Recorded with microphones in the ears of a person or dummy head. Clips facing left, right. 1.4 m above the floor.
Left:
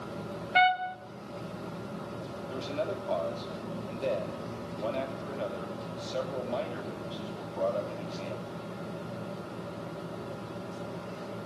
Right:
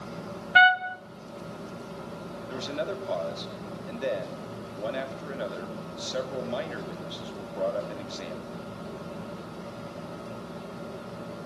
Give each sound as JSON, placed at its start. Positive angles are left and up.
{"t": 0.6, "sound": "a trumpet", "side_deg": -10, "distance_m": 0.5}
{"t": 2.5, "sound": "a man speaking", "side_deg": -20, "distance_m": 2.5}